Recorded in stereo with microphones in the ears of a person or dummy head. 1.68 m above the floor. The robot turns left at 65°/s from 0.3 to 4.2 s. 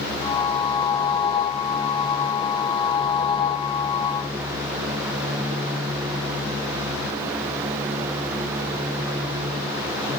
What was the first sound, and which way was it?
Only background noise.